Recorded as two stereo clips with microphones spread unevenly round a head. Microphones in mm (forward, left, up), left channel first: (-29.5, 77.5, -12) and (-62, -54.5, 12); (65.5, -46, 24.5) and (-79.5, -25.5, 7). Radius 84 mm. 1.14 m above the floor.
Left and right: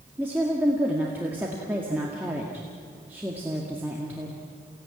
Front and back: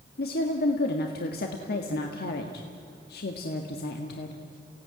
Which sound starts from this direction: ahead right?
A woman speaking, at 0.2 s.